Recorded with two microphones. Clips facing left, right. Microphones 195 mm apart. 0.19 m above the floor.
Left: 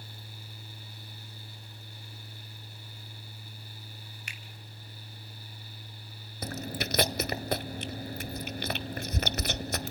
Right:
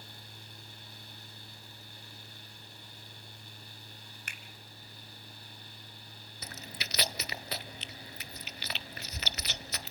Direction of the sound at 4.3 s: 50° right (ahead or behind).